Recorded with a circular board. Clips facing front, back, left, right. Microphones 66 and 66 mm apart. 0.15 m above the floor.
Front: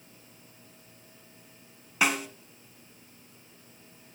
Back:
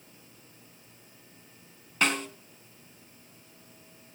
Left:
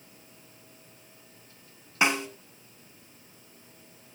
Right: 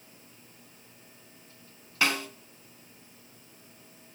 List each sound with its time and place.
2.0 s a snare drum: 65° left, 1.6 m